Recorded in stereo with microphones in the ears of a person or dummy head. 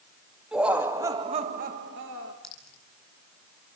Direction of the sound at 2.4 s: Centre (ahead or behind).